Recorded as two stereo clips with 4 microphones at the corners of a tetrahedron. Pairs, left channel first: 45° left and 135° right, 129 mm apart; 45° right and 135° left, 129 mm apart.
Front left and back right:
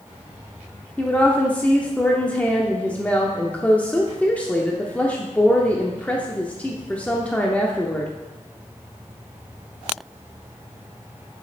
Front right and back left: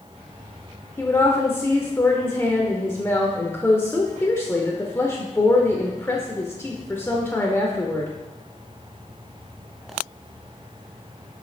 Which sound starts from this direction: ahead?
A woman speaking, at 1.0 s.